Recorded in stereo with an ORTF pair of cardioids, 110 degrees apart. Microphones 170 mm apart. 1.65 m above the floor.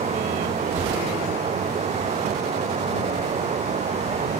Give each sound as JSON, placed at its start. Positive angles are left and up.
{"t": 0.0, "sound": "running water", "azimuth_deg": -40}